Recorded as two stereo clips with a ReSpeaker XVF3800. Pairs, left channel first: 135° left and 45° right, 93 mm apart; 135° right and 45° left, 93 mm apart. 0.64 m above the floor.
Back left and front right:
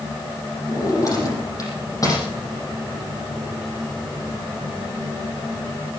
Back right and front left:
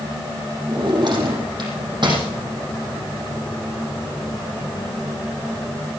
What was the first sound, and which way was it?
A drawer, 85° left.